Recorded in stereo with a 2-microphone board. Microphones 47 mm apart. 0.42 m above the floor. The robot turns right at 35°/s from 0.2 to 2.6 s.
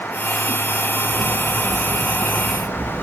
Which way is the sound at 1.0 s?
95° right.